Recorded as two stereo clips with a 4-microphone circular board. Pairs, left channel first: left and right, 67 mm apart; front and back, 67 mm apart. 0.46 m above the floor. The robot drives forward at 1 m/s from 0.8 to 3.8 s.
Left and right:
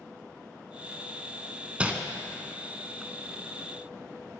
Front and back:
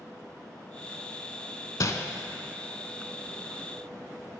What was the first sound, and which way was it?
Crumpling, 20° right.